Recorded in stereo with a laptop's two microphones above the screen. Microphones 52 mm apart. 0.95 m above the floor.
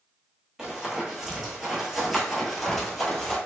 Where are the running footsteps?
15° right (ahead or behind), 1.1 m; by 3.4 s 10° left (ahead or behind), 1.2 m.